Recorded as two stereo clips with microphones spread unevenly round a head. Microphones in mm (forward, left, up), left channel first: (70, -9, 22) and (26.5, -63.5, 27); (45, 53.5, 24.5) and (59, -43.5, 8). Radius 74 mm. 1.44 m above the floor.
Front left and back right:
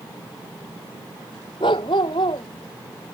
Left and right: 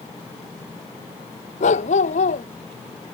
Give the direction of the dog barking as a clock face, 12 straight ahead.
9 o'clock.